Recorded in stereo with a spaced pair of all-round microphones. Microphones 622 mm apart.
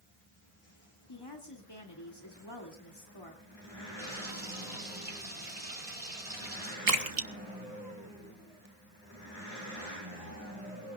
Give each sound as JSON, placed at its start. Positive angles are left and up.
{"t": 1.1, "sound": "a woman speaking", "side_deg": 40, "distance_m": 3.0}
{"t": 4.0, "sound": "frying", "side_deg": -60, "distance_m": 5.0}
{"t": 6.9, "sound": "a splash", "side_deg": -70, "distance_m": 1.3}